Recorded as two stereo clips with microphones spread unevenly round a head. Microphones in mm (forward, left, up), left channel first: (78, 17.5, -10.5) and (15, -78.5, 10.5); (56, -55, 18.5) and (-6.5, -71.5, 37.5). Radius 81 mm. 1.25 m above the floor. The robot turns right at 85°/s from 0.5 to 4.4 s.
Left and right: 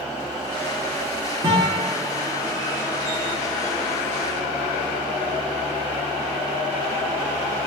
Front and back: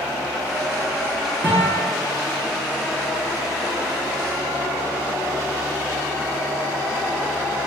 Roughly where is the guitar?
Behind right.